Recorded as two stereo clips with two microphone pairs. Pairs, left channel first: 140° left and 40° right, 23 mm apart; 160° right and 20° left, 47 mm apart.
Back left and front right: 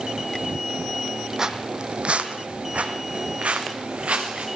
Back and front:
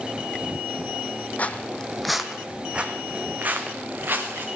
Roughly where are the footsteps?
Right.